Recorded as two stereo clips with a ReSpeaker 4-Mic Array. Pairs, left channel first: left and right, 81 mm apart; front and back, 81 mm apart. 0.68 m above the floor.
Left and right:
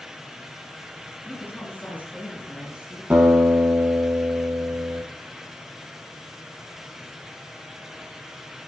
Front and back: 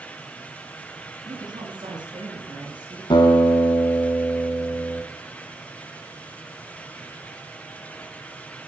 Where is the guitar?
20° right, 6.5 m.